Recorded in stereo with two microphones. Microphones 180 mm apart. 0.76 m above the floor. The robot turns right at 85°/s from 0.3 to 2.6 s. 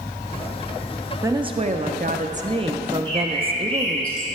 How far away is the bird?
About 1.9 m.